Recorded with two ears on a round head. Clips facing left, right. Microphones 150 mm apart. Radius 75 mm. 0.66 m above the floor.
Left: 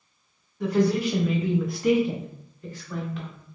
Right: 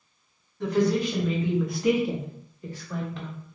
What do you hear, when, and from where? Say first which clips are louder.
0.6 s a woman speaking: left 1 dB; 10° left (ahead or behind), 1.2 m; by 3.3 s 15° right (ahead or behind), 1.1 m